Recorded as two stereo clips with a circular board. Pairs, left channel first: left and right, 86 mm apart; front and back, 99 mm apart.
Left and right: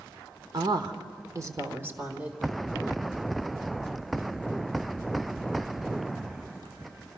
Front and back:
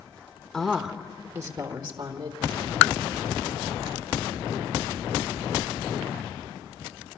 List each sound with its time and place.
0.5 s a woman speaking: 85° right, 1.5 m; by 2.4 s 165° right, 2.0 m